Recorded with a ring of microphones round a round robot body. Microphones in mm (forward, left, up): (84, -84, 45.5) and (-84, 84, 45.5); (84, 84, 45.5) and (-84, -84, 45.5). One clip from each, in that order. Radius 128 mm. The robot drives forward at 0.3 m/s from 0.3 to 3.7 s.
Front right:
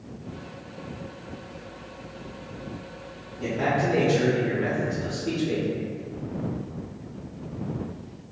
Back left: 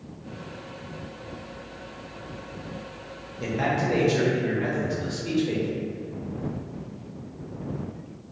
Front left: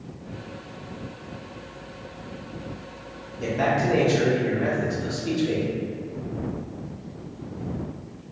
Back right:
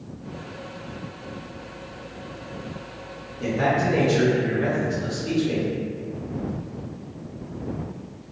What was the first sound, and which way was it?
A man speaking, 105° left.